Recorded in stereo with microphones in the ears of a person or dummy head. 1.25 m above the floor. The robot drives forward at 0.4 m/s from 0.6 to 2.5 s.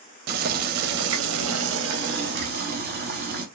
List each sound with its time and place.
0.3 s boiling: 55° right (ahead or behind), 0.6 m; by 3.5 s 45° right (ahead or behind), 0.7 m